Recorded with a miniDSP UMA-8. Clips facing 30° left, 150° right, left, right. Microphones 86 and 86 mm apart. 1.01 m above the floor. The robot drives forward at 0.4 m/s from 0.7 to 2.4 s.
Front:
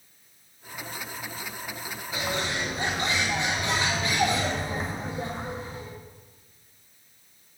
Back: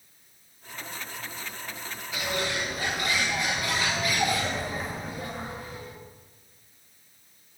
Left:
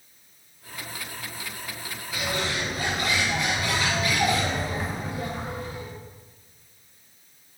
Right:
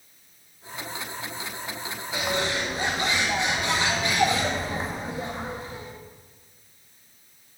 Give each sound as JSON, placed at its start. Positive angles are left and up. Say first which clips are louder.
{"t": 2.1, "sound": "a bird", "louder": "even, right 2 dB", "azimuth_deg": -25, "distance_m": 1.6}